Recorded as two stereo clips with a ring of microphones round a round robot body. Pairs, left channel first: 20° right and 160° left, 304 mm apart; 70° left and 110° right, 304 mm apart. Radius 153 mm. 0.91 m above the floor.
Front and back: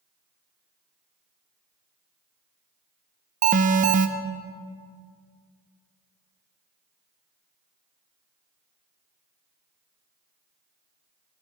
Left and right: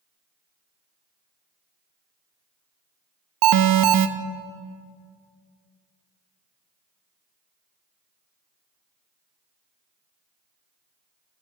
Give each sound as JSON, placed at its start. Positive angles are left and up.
{"t": 3.4, "sound": "an alarm", "azimuth_deg": -135, "distance_m": 0.7}